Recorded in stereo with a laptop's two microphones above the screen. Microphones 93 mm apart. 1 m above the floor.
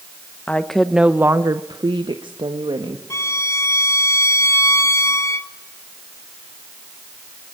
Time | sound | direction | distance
0.5 | a woman speaking | 15° left (ahead or behind) | 0.9 m
3.1 | a violin | 30° left (ahead or behind) | 1.2 m